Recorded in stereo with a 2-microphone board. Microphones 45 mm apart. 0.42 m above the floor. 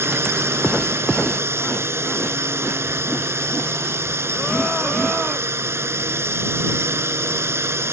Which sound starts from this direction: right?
A drone, at 0.0 s.